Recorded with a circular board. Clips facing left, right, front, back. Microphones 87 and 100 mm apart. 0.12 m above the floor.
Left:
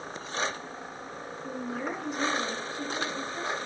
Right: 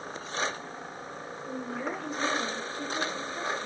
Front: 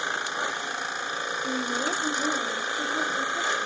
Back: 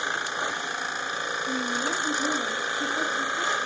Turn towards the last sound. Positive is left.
turn(degrees=20)